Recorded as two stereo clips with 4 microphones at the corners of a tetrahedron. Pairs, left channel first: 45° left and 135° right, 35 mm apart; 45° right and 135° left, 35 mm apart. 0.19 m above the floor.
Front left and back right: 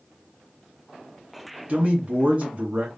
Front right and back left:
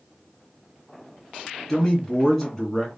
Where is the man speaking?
115° right, 1.9 m.